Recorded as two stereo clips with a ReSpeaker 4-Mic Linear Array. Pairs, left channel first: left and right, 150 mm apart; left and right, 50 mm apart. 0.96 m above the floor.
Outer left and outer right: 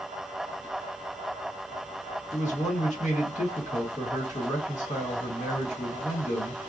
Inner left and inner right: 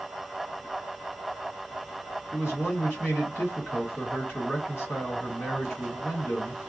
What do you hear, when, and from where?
2.3 s a man speaking: 55° left (ahead or behind), 1.5 m